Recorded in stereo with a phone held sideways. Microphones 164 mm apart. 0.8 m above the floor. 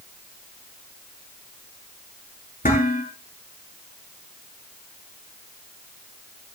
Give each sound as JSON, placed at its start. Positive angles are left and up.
{"t": 2.6, "sound": "dishes clattering", "side_deg": 55, "distance_m": 8.5}